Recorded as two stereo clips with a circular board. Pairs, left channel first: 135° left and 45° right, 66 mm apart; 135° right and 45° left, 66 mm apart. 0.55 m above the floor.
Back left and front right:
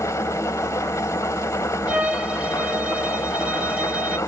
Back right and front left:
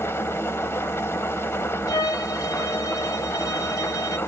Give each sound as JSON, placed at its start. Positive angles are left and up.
{"t": 0.0, "sound": "an engine running", "azimuth_deg": 175, "distance_m": 1.2}
{"t": 1.9, "sound": "a violin", "azimuth_deg": -115, "distance_m": 1.2}